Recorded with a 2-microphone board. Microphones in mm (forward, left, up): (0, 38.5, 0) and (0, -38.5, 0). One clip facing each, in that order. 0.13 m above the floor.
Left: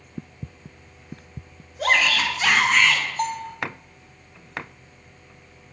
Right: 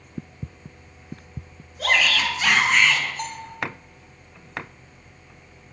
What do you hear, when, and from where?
1.8 s a shout: 20° left (ahead or behind), 1.4 m; by 3.0 s 5° right (ahead or behind), 1.1 m
3.2 s a bell: 45° left (ahead or behind), 1.1 m